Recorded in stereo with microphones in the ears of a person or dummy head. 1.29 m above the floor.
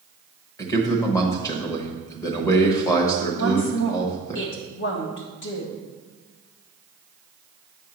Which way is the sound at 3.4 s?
55° left (ahead or behind).